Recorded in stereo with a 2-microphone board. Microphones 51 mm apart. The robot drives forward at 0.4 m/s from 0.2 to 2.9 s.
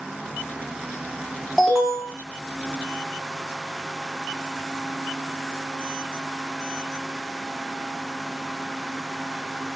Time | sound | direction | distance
1.6 | an alarm | centre (ahead or behind) | 1.4 m